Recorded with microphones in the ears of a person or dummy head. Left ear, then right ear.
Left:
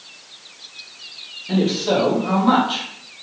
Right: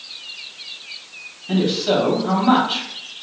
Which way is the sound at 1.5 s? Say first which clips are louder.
Even; 5° left (ahead or behind).